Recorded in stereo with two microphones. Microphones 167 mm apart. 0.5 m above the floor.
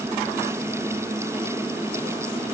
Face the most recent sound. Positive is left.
No sound to turn to.